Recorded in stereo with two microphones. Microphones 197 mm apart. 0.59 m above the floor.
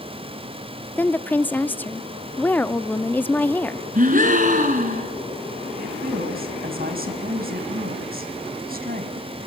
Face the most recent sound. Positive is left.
turn(degrees=-50)  # may be behind; listen again after turning